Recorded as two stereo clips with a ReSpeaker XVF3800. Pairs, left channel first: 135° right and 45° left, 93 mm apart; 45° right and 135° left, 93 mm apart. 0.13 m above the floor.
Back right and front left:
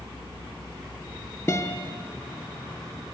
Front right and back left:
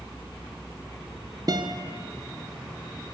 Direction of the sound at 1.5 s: 165° left.